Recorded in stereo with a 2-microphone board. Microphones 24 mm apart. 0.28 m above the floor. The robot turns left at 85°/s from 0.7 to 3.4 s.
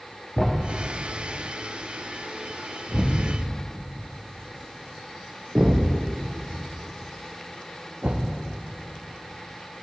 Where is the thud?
15° left (ahead or behind), 5 m; by 8.3 s 65° right (ahead or behind), 5 m.